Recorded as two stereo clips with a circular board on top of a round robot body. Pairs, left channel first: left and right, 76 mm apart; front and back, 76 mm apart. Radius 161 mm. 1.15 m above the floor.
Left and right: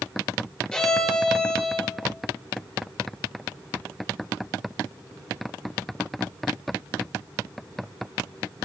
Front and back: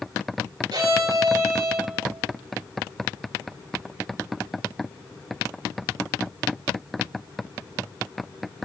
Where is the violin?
175° left, 3.5 m.